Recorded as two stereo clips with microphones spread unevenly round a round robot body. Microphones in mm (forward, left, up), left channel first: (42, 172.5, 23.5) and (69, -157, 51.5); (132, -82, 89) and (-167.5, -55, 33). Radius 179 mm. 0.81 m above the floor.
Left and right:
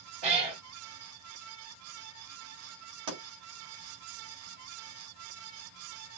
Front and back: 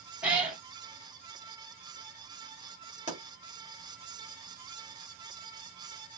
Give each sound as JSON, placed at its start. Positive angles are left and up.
{"t": 0.2, "sound": "a cat meowing", "azimuth_deg": -95, "distance_m": 2.5}
{"t": 3.1, "sound": "a pop", "azimuth_deg": -65, "distance_m": 4.0}